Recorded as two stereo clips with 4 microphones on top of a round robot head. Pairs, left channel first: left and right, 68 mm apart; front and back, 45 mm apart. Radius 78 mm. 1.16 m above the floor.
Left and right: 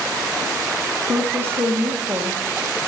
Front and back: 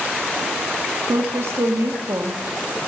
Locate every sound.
1.1 s a woman speaking: 150° right, 1.2 m